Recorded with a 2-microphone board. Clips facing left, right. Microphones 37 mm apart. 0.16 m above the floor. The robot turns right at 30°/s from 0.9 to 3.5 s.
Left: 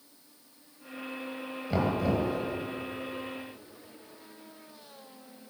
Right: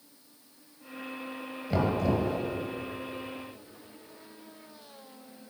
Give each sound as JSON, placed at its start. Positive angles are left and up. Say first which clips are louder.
{"t": 1.7, "sound": "knocking", "louder": "right 1 dB", "side_deg": 0, "distance_m": 2.5}